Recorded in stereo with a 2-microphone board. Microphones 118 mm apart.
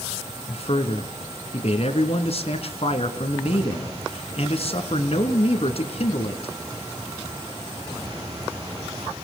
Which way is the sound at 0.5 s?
60° left (ahead or behind).